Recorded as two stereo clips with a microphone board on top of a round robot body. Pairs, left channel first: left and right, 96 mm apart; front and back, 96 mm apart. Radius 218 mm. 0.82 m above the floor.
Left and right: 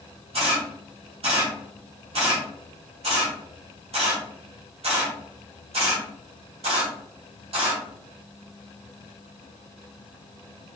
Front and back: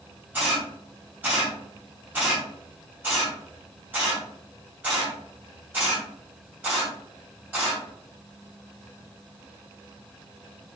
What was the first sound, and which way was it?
A camera shutter, 105° right.